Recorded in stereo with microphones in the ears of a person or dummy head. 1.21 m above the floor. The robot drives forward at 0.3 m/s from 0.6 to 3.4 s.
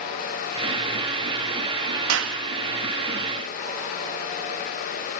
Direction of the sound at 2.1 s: 70° right (ahead or behind).